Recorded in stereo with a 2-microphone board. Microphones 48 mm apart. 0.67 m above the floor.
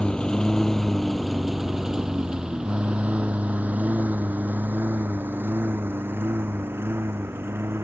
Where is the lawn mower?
20° left (ahead or behind); by 7.8 s 50° right (ahead or behind).